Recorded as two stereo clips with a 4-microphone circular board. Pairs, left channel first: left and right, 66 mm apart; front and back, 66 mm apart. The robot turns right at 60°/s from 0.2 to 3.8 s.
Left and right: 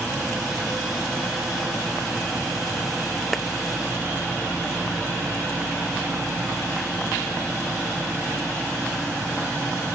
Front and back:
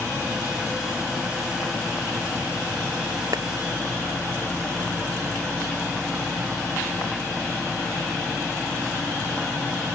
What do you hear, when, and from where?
3.3 s a clap: 175° left; by 3.5 s 175° right